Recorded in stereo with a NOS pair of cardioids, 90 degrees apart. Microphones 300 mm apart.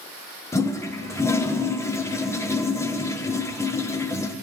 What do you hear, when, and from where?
0.5 s a toilet flushing: 10° left, 1.1 m